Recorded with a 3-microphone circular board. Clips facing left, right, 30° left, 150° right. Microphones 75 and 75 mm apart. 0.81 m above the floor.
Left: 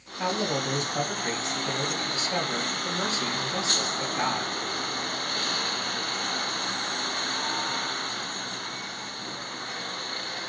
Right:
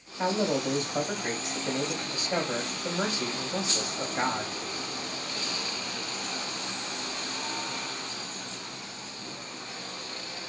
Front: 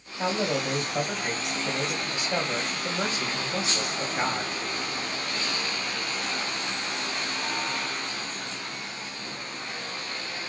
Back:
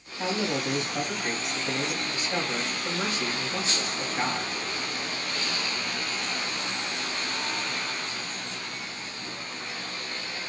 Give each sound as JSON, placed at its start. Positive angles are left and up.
{"t": 0.2, "sound": "a man speaking", "azimuth_deg": -40, "distance_m": 2.5}